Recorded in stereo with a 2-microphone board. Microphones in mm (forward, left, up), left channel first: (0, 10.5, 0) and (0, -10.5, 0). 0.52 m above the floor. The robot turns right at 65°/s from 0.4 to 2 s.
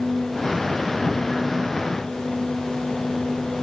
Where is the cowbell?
No cowbell in this recording.